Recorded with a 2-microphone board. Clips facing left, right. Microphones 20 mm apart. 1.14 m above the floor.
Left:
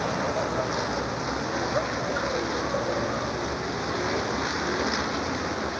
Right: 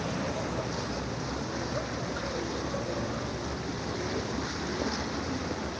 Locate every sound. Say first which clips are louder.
0.0 s a vehicle: left 6 dB; 45° left (ahead or behind)